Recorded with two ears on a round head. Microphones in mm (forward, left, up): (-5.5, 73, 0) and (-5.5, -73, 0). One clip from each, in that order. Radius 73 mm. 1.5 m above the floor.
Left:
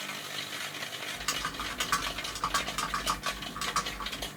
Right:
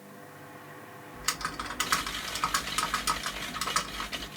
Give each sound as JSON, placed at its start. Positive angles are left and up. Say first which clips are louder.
{"t": 1.1, "sound": "typing on a keyboard", "louder": "right 2 dB", "side_deg": -20, "distance_m": 0.7}